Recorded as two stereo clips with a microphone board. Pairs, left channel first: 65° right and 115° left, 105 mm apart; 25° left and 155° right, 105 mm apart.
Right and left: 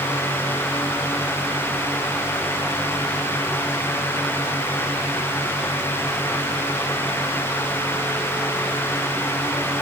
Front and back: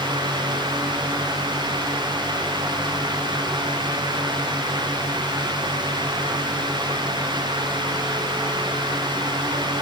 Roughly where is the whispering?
I don't hear whispering.